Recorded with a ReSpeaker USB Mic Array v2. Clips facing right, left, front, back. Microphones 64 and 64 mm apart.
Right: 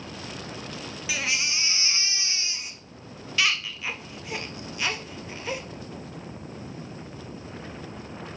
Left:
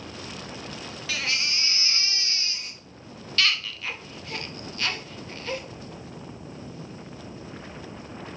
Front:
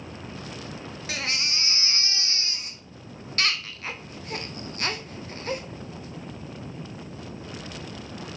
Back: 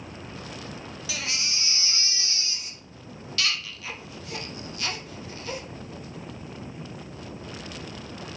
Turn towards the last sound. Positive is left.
turn(degrees=-20)